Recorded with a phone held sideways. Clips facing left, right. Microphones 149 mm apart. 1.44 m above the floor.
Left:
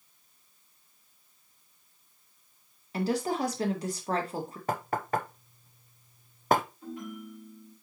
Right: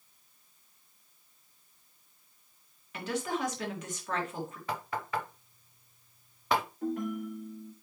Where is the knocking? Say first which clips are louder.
Left 6 dB; 45° left (ahead or behind), 0.6 m.